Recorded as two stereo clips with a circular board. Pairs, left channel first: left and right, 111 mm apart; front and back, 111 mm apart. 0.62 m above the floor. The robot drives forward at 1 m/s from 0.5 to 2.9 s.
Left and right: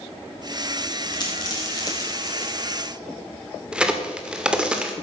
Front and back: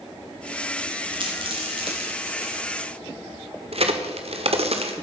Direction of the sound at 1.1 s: 140° left.